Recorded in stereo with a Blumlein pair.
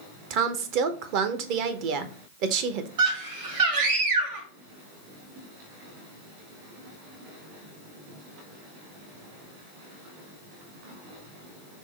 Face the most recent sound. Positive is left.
turn(degrees=-55)